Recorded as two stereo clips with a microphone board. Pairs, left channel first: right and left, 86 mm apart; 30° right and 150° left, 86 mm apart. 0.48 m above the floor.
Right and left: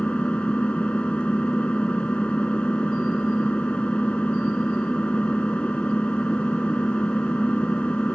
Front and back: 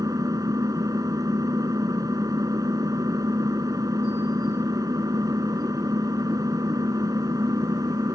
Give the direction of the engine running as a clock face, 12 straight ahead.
6 o'clock.